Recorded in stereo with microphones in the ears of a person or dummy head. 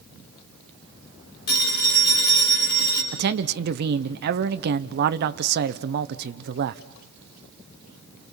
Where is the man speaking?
60° right (ahead or behind), 1.0 m.